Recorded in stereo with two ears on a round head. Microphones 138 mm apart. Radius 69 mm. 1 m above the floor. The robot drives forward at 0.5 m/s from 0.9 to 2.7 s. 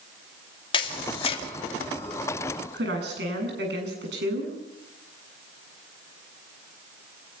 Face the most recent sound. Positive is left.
turn(degrees=-80)